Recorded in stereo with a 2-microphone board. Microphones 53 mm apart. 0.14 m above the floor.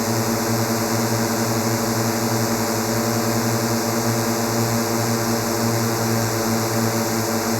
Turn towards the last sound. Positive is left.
turn(degrees=0)  # may be behind; listen again after turning